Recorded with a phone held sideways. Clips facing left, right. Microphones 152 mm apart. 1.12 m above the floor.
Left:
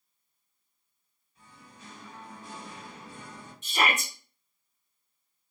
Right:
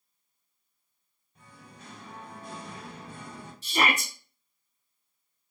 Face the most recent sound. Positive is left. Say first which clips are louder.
# right 1 dB
turn(degrees=-35)  # may be behind; listen again after turning